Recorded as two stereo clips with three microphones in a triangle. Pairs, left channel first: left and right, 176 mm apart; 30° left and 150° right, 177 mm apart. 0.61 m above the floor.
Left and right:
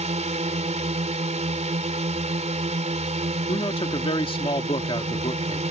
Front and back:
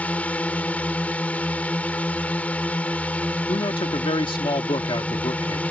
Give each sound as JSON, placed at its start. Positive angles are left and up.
{"t": 0.0, "sound": "a drone", "azimuth_deg": -50}
{"t": 3.5, "sound": "a man speaking", "azimuth_deg": 60}